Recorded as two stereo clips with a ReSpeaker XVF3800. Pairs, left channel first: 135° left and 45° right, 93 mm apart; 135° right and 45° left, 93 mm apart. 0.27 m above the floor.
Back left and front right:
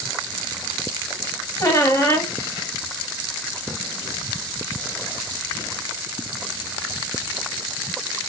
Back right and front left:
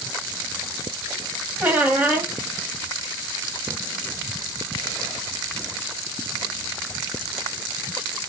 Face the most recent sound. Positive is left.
turn(degrees=105)